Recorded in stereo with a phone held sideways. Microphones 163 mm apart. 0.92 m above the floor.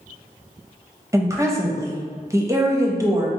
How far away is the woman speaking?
About 0.6 m.